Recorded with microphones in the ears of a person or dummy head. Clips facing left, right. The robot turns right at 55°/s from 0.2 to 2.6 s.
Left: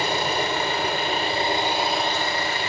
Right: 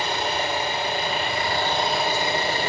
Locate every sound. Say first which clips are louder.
0.0 s an engine running: left 2 dB; 80° left, 4.5 m; by 2.7 s 150° right, 4.5 m